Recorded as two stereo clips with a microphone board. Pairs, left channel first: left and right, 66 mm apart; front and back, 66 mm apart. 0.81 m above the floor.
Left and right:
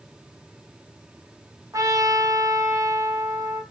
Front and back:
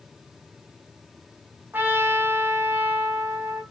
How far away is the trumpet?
About 3.5 m.